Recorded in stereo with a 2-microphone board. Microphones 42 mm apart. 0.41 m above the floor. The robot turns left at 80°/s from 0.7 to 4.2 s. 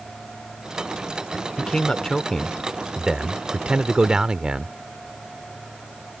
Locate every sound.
1.6 s a man speaking: 25° left (ahead or behind); by 4.8 s 20° right (ahead or behind)